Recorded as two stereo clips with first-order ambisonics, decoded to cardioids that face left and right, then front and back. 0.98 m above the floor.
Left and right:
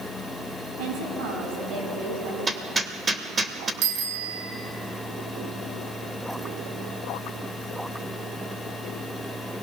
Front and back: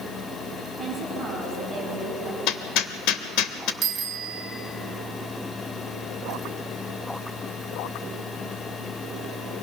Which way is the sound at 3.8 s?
115° right.